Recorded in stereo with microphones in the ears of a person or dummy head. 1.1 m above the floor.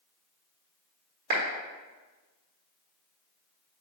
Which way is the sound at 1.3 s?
55° right (ahead or behind).